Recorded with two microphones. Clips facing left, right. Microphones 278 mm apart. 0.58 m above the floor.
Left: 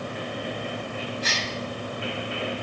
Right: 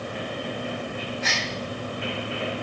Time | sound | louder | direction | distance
1.2 | a gasp | right 1 dB | 40° left (ahead or behind) | 1.4 m